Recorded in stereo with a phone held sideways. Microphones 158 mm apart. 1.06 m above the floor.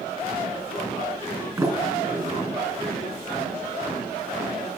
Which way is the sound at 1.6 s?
20° right (ahead or behind).